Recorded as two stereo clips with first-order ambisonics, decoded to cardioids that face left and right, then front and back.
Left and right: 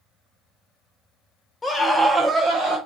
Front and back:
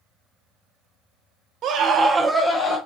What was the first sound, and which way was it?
A scream, 165° left.